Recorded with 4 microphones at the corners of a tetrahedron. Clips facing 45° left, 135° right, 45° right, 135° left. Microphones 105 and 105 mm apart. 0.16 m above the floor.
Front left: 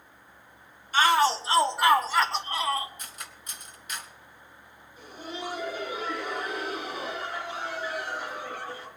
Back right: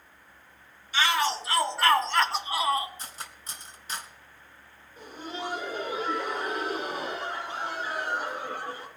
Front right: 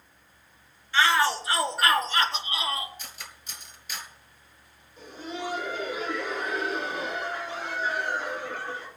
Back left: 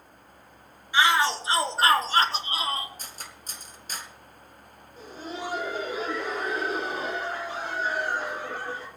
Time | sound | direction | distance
0.9 | a shout | 65° left | 1.5 m
3.0 | cutlery clinking | 170° left | 1.4 m
5.0 | laughter | straight behind | 5.5 m